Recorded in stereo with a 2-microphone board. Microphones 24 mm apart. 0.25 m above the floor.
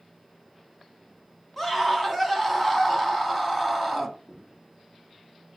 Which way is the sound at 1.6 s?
10° left (ahead or behind).